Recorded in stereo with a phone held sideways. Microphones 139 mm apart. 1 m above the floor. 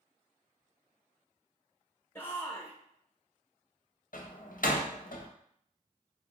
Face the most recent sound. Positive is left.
turn(degrees=75)  # may be behind; listen again after turning